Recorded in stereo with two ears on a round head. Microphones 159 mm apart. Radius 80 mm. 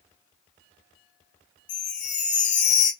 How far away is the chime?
About 1.0 m.